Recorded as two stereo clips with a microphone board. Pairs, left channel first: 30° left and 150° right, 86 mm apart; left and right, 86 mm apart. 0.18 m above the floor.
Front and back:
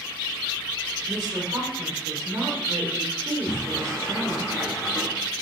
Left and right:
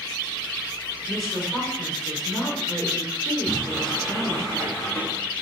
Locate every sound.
1.1 s a woman speaking: 170° left, 1.8 m
3.4 s a sliding door: 40° left, 2 m